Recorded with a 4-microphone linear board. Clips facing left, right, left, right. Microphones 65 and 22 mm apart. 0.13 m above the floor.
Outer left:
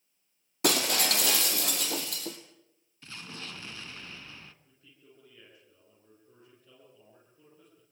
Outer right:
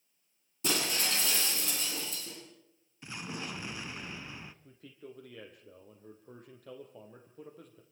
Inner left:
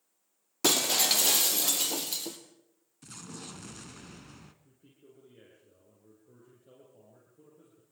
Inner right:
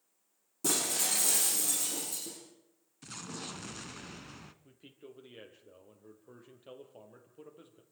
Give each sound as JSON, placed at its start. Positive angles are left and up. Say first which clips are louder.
{"t": 0.6, "sound": "breaking glass", "louder": "outer left 5 dB, inner left 7 dB", "side_deg": 70, "distance_m": 3.0}
{"t": 3.0, "sound": "an explosion", "louder": "outer right 4 dB, inner right 2 dB", "side_deg": -15, "distance_m": 0.9}
{"t": 4.6, "sound": "a man speaking", "louder": "outer right 10 dB, inner right 6 dB", "side_deg": -70, "distance_m": 5.0}